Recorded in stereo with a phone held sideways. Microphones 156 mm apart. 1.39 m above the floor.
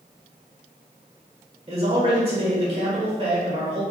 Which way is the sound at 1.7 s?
40° right (ahead or behind).